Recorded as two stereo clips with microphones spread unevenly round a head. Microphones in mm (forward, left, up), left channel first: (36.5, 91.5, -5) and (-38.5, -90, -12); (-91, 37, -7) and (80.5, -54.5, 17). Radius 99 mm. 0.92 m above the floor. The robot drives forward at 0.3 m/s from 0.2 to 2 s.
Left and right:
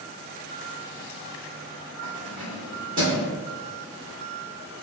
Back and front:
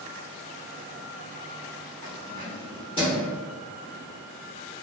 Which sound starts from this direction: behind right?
Keys jangling, at 2.0 s.